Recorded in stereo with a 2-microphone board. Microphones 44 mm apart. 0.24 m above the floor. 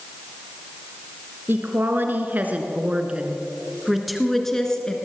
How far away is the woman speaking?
About 3 m.